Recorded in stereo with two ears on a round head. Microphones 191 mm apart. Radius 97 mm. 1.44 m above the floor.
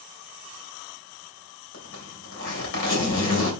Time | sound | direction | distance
1.7 | a zipper | 60° left (ahead or behind) | 3 m